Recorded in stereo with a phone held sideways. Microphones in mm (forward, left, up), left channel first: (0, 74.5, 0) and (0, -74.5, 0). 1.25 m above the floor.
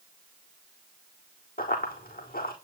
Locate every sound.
1.6 s running footsteps: 70° left (ahead or behind), 4 m